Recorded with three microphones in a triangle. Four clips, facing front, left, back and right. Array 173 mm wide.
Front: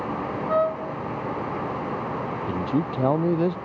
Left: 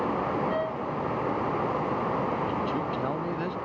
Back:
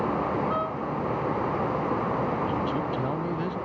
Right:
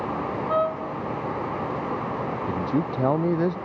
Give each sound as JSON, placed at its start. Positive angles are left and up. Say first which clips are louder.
{"t": 0.5, "sound": "a trumpet", "louder": "right 5 dB, front 5 dB", "azimuth_deg": -25}
{"t": 2.5, "sound": "a man speaking", "louder": "right 3 dB, front 2 dB", "azimuth_deg": -35}